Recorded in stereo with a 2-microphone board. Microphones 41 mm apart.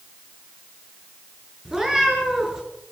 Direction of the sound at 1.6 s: 10° right (ahead or behind).